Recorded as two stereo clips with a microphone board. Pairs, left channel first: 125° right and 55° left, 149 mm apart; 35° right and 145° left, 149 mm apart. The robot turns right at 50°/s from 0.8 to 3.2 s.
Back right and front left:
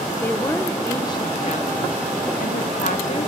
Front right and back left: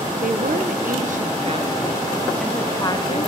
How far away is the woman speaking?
About 1.1 m.